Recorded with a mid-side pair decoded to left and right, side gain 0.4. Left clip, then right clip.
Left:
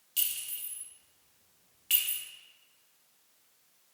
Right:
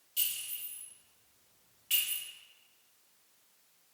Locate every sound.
0.2 s a clink: 65° left, 1.2 m